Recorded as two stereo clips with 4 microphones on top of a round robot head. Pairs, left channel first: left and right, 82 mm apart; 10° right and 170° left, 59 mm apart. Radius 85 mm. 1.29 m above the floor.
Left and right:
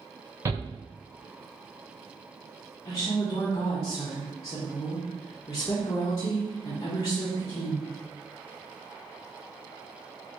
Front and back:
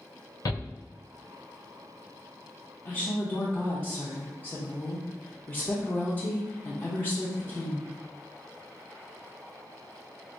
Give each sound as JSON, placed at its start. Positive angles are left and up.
{"t": 0.5, "sound": "a shout", "azimuth_deg": -35, "distance_m": 0.7}
{"t": 2.9, "sound": "a woman speaking", "azimuth_deg": 45, "distance_m": 0.8}